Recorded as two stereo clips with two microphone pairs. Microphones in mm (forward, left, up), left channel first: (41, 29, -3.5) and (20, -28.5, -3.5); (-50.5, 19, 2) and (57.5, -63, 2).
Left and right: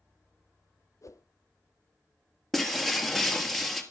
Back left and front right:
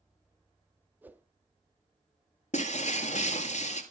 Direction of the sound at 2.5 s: 155° left.